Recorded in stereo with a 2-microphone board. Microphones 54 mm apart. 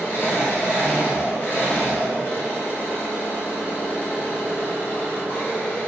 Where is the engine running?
40° left (ahead or behind), 1.9 m.